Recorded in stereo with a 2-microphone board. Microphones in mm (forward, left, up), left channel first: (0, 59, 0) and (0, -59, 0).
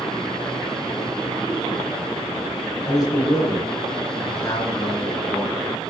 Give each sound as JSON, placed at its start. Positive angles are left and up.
{"t": 2.9, "sound": "a man speaking", "side_deg": 35, "distance_m": 5.0}